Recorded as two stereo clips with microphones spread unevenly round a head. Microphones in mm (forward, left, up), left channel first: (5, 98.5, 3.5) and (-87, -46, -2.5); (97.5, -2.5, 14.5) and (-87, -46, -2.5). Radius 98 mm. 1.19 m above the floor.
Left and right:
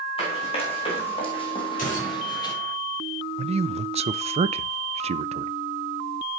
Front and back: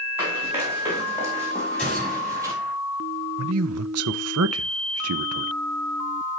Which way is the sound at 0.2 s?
115° left.